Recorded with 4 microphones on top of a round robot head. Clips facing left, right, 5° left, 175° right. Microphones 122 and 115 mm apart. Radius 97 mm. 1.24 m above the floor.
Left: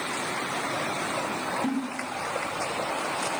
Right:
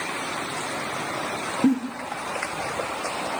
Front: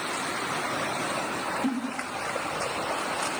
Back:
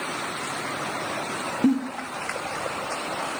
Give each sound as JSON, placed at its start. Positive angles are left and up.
{"t": 1.6, "sound": "a giggle", "azimuth_deg": -130, "distance_m": 0.7}